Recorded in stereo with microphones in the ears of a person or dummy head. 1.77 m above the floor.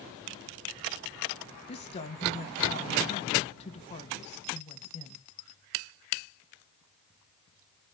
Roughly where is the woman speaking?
Left.